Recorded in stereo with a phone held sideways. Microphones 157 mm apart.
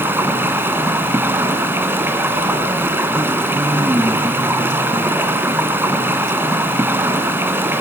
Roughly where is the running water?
Centre.